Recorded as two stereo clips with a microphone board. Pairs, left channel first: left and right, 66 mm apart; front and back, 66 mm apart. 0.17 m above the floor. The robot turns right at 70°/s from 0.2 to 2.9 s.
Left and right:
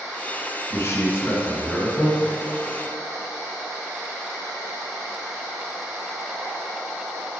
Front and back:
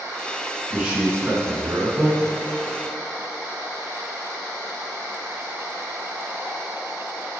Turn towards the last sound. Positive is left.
turn(degrees=-105)